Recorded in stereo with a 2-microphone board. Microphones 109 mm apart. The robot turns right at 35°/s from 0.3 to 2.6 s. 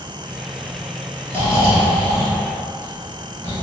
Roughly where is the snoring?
Right.